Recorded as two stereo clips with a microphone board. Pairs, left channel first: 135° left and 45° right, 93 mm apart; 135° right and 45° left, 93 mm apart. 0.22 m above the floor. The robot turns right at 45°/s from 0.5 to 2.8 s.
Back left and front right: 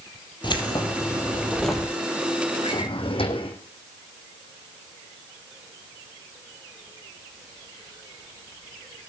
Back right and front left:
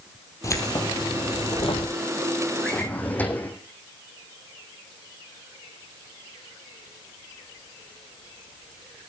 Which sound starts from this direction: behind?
Keys jangling, at 0.4 s.